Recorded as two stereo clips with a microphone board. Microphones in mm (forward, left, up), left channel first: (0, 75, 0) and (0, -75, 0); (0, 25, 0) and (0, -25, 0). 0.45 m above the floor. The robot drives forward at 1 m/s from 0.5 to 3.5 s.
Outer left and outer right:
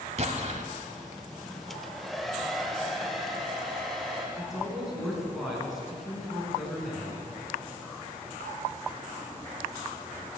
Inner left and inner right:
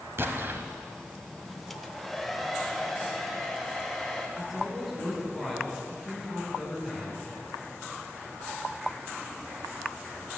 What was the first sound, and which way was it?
An explosion, 50° right (ahead or behind).